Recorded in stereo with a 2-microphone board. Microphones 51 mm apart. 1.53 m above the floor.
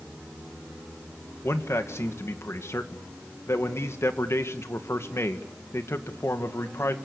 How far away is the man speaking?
About 2 m.